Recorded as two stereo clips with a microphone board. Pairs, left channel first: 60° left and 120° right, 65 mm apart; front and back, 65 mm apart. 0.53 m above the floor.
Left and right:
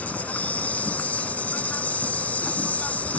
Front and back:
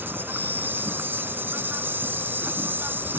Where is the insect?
125° left.